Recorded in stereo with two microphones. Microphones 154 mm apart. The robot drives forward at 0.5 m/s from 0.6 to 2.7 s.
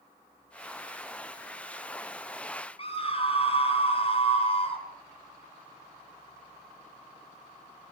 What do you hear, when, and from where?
2.8 s a scream: 40° left (ahead or behind), 4 m